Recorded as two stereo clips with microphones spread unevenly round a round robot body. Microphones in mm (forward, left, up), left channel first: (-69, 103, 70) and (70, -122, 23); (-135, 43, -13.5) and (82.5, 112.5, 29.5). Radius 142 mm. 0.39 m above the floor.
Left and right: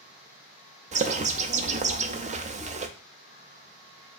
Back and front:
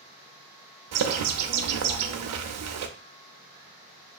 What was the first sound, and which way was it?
A bird, 5° right.